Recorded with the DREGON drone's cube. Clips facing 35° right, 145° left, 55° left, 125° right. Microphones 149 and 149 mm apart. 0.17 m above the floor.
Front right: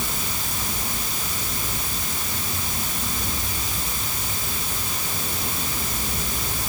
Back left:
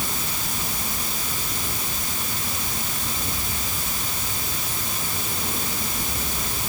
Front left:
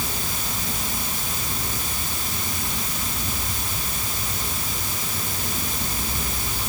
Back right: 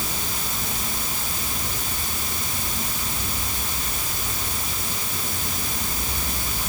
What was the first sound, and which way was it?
Only background noise.